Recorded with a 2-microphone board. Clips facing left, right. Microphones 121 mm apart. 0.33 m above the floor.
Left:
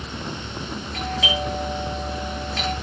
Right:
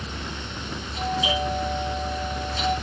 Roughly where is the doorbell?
Left.